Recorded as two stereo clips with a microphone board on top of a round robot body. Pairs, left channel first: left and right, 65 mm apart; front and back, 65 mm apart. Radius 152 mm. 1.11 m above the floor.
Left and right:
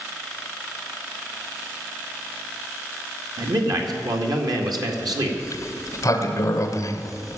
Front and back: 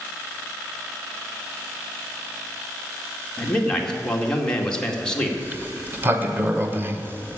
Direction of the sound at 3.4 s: 75° right.